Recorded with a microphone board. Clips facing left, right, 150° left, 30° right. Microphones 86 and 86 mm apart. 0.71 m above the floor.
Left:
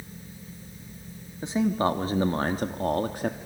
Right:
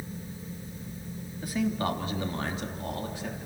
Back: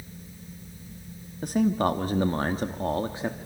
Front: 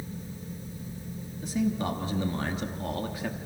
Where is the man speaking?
150° left, 1.4 m; by 3.4 s 90° left, 1.4 m.